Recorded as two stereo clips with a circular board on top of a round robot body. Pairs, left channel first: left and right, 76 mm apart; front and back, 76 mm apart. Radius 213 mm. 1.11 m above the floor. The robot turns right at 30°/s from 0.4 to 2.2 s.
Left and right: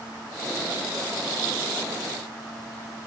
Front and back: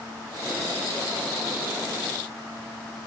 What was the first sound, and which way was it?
Only background noise.